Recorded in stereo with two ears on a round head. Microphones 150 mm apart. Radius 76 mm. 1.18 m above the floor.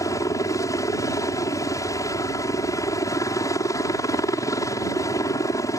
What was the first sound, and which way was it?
A helicopter, 20° left (ahead or behind).